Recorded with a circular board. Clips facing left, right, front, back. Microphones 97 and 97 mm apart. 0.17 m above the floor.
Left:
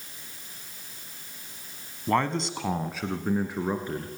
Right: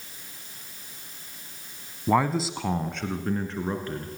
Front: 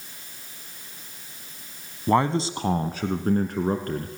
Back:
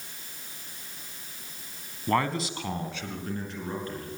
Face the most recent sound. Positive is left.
turn(degrees=15)